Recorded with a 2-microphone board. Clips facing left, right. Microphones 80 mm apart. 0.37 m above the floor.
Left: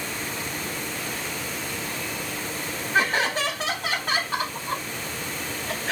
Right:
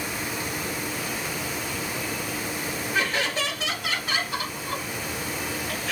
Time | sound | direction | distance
2.9 | laughter | 45° left (ahead or behind) | 2.5 m